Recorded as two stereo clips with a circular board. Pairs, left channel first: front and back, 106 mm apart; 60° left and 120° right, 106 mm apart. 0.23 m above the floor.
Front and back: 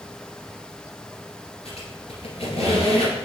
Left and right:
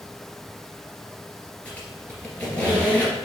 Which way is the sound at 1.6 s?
15° right.